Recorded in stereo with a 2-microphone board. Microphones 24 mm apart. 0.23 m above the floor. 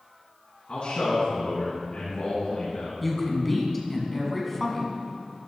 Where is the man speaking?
60° left (ahead or behind), 2.5 m.